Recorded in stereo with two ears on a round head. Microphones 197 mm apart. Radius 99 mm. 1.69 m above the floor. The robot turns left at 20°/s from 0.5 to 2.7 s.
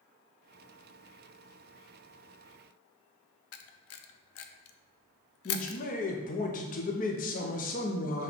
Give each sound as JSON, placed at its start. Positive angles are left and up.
{"t": 3.5, "sound": "a camera shutter", "side_deg": 70, "distance_m": 0.5}
{"t": 5.5, "sound": "a man speaking", "side_deg": 35, "distance_m": 0.6}